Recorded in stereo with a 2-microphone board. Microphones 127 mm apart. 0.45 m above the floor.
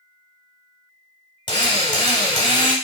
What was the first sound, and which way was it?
A drill, 40° left (ahead or behind).